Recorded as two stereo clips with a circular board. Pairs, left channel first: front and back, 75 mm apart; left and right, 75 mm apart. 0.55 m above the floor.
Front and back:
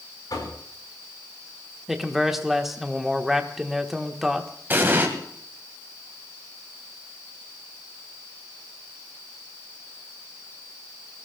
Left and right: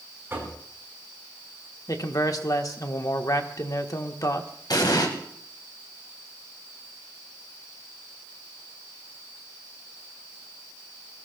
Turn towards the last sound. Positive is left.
turn(degrees=115)